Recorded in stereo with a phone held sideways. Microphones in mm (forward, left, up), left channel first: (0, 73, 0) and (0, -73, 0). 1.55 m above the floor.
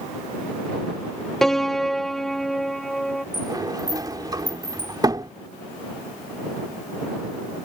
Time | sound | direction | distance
1.4 | a piano | centre (ahead or behind) | ?
3.3 | a sliding door | 25° right (ahead or behind) | ?